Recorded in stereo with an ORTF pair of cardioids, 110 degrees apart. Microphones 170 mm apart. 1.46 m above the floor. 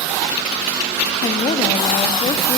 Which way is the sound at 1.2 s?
35° left.